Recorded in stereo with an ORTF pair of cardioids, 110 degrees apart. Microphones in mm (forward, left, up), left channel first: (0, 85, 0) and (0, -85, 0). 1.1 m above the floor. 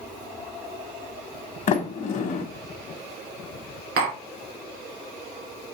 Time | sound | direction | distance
1.7 | a sliding door | 50° left | 1.1 m
4.0 | tapping | 70° right | 2.5 m